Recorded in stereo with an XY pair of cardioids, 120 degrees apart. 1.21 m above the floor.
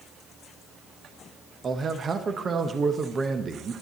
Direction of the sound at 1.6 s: 30° right.